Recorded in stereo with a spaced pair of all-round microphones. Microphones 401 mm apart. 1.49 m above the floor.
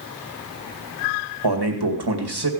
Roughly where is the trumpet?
I don't hear a trumpet.